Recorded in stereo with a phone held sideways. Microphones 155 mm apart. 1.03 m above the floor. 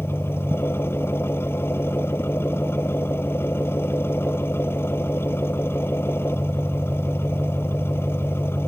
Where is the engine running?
15° left (ahead or behind).